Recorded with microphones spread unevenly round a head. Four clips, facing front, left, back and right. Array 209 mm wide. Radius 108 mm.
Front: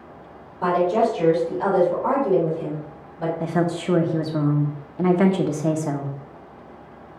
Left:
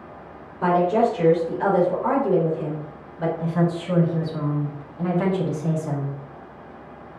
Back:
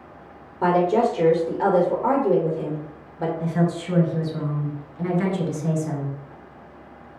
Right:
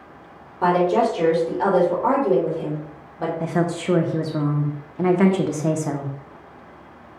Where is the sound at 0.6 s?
155° right, 2.5 m.